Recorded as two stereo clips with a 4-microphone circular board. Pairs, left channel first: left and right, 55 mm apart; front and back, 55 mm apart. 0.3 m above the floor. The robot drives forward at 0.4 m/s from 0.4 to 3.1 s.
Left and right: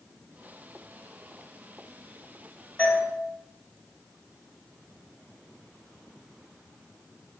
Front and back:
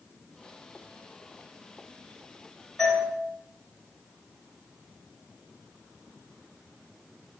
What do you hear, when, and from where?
2.8 s a doorbell: 115° left, 1.4 m; by 3.1 s 125° left, 1.4 m